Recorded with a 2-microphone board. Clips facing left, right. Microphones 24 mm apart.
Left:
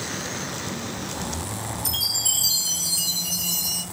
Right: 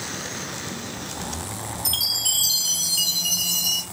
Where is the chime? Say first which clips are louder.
Right 2 dB; 40° right (ahead or behind), 1.1 m.